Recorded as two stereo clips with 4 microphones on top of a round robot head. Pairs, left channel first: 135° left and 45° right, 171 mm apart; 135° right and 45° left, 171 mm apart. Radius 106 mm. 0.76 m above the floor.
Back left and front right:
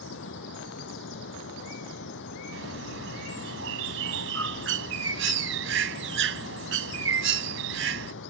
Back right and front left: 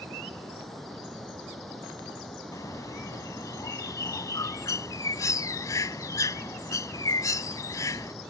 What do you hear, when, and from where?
0.0 s running water: 140° left
2.5 s a bird: 60° right